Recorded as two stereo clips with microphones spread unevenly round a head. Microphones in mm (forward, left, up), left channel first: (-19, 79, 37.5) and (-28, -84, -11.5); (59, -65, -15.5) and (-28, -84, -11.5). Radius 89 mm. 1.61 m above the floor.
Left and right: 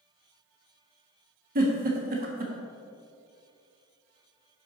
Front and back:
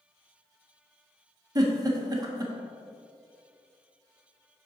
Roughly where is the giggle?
Behind right.